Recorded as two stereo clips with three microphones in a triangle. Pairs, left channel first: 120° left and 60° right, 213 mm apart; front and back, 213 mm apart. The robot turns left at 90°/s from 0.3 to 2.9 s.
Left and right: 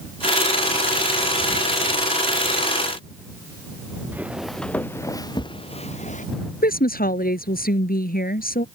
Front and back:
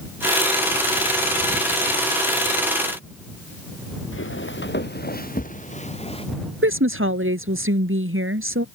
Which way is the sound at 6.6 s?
165° left.